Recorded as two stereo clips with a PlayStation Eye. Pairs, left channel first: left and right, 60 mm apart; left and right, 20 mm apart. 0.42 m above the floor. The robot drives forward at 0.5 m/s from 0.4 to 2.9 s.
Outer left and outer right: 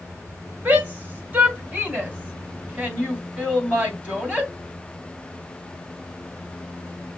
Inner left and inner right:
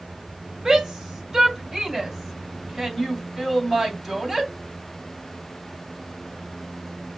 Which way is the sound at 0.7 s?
30° right (ahead or behind).